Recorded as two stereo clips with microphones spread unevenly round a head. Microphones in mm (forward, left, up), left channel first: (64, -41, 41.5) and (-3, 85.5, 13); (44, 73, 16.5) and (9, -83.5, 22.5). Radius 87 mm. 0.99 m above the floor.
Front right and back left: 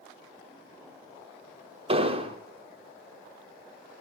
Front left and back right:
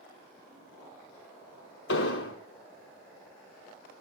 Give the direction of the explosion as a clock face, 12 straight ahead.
10 o'clock.